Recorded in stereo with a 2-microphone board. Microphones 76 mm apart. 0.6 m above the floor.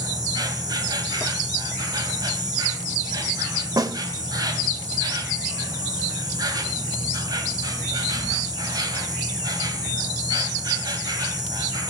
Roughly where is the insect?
Right.